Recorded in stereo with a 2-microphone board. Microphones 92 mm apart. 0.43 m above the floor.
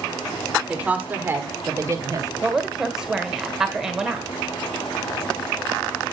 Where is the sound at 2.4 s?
5° right (ahead or behind), 1.5 m.